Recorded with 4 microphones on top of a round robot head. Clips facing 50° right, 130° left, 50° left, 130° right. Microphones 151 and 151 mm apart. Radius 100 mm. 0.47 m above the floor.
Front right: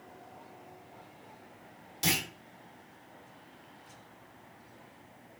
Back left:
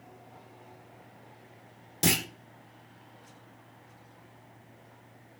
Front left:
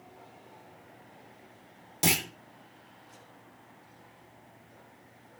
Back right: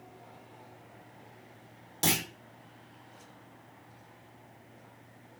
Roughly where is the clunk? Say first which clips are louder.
Back left 5 dB, front left 1 dB; behind left.